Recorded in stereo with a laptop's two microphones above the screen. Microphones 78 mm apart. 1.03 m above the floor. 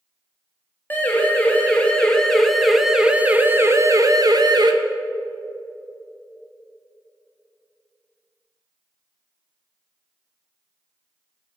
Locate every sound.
0.9 s a siren: 25° left (ahead or behind), 2 m; by 4.7 s 60° right (ahead or behind), 1.2 m